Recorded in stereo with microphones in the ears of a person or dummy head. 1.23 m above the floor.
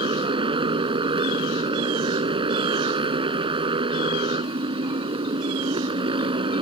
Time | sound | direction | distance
0.0 | a motorcycle | 25° right (ahead or behind) | ?